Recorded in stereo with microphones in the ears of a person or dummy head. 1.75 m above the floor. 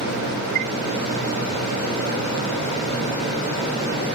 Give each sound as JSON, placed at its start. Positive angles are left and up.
{"t": 0.6, "sound": "a chime", "side_deg": -50}